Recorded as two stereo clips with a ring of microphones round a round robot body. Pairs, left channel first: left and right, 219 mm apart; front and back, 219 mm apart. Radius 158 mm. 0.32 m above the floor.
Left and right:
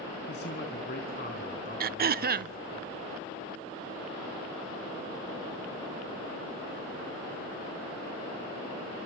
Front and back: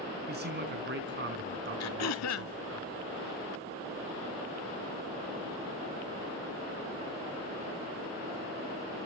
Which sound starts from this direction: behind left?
A man speaking, at 0.3 s.